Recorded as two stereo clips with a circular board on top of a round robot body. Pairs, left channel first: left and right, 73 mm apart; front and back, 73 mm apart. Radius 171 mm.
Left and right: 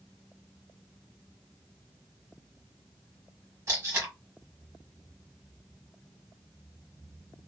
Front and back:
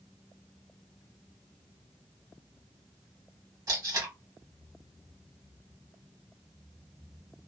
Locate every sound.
3.7 s tape being pulled: 140° right, 1.2 m